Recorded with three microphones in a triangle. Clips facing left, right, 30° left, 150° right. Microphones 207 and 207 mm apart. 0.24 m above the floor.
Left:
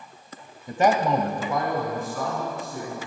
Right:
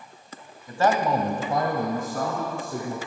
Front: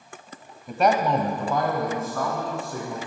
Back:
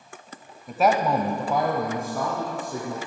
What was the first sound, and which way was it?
A man speaking, 120° left.